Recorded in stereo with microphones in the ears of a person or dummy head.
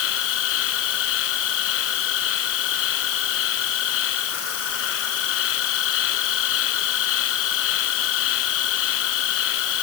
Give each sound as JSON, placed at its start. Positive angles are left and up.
{"t": 0.0, "sound": "an insect", "side_deg": 70}